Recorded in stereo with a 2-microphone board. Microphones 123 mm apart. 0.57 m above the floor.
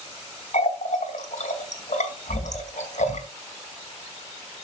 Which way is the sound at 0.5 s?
75° left (ahead or behind).